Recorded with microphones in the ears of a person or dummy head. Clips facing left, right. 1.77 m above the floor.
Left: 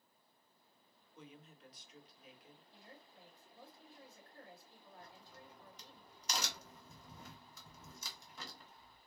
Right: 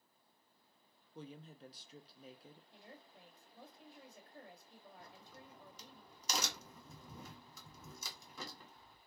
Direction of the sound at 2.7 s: 15° right (ahead or behind).